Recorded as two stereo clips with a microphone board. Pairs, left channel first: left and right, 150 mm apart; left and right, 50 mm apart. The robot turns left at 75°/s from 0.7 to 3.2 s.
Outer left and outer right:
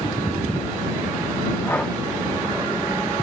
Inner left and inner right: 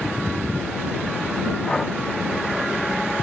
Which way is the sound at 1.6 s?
20° left (ahead or behind).